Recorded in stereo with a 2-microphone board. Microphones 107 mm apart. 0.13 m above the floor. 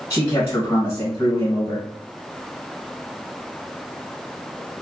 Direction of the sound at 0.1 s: 25° left (ahead or behind).